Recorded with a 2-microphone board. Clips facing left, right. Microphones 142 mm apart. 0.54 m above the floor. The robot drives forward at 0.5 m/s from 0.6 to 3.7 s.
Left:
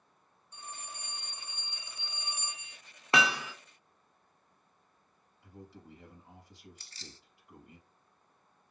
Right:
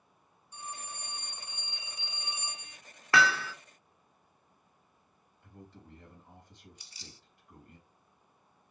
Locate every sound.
0.5 s a phone ringing: 15° right (ahead or behind), 1.8 m; by 2.8 s 25° right (ahead or behind), 0.9 m
3.1 s hammering: 20° left (ahead or behind), 0.6 m; by 3.5 s 15° left (ahead or behind), 0.8 m
5.4 s a man speaking: 5° left (ahead or behind), 4 m
6.8 s keys jangling: 15° right (ahead or behind), 0.7 m